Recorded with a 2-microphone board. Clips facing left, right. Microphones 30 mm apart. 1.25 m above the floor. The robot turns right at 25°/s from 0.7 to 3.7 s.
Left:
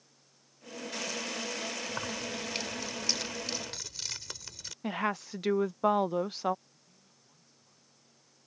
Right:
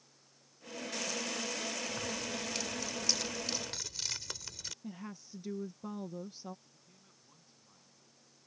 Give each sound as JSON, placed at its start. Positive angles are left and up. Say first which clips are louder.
{"t": 1.9, "sound": "keys jangling", "louder": "left 2 dB", "azimuth_deg": 135}
{"t": 4.8, "sound": "a woman speaking", "louder": "left 14 dB", "side_deg": 80}
{"t": 6.7, "sound": "a man speaking", "louder": "even", "side_deg": -15}